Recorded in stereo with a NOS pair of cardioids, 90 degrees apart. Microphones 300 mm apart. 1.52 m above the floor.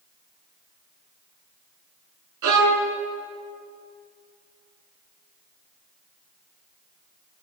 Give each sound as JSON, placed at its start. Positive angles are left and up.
{"t": 2.4, "sound": "a violin", "azimuth_deg": -70, "distance_m": 4.5}